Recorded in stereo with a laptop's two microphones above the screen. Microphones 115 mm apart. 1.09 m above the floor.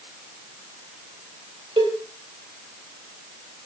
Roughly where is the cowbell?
Right.